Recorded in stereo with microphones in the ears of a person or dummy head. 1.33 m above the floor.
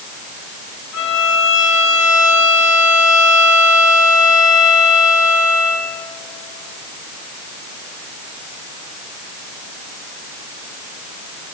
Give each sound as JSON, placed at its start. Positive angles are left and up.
{"t": 0.9, "sound": "a violin", "side_deg": 70, "distance_m": 2.5}